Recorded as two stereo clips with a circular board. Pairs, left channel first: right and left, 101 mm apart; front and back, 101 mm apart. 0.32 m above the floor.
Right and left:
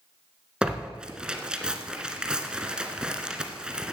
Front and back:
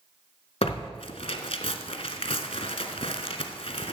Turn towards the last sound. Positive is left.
turn(degrees=10)